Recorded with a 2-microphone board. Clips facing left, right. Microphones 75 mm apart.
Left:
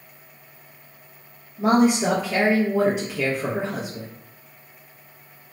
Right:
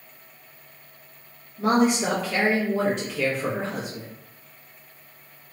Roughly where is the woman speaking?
Centre.